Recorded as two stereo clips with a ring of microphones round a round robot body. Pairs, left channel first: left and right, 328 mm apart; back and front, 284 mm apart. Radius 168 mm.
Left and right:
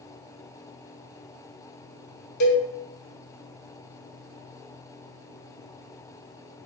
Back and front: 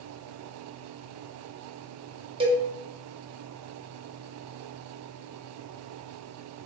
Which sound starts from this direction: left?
A cowbell, at 2.4 s.